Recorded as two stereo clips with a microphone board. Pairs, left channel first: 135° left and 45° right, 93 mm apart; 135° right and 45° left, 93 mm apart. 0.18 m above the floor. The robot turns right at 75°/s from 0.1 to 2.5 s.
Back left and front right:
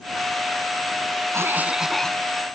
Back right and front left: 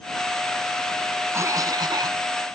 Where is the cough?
Straight ahead; by 2.2 s 65° left.